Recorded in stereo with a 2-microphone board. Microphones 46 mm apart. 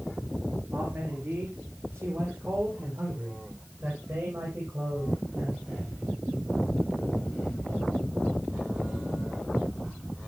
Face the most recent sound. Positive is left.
turn(degrees=-55)  # may be behind; listen again after turning